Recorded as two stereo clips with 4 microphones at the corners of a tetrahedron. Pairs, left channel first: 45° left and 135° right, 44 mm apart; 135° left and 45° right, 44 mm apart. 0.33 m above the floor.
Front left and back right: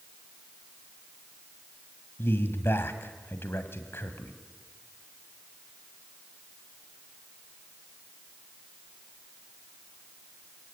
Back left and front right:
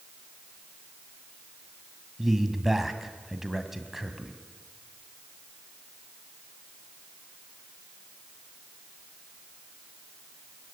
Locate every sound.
2.2 s a man speaking: 40° left, 2 m